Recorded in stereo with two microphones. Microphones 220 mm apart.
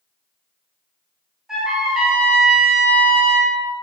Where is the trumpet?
Centre (ahead or behind), 1.0 m.